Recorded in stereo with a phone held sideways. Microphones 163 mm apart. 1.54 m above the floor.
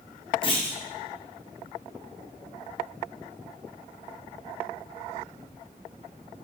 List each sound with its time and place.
0.4 s a clunk: 30° left (ahead or behind), 0.8 m